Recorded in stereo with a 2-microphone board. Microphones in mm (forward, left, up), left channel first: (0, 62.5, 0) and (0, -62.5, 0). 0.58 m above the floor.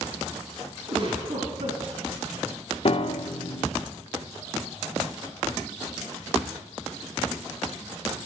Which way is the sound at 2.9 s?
50° left (ahead or behind).